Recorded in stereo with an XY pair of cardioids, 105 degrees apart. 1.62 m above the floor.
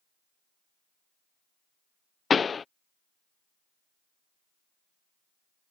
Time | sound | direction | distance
2.3 | a pop | 35° left | ?